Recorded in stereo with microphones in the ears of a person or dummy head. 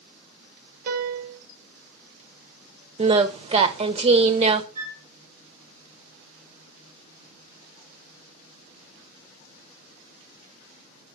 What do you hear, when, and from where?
0.9 s a piano: 55° right (ahead or behind), 1.0 m
3.0 s singing: 35° right (ahead or behind), 0.9 m
4.8 s a flute: 45° right (ahead or behind), 5 m